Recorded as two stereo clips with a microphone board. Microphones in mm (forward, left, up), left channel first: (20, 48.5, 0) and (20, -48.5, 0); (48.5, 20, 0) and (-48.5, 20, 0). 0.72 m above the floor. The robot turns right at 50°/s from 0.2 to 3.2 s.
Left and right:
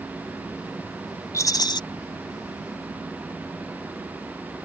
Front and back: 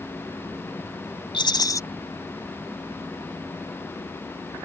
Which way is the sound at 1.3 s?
35° left.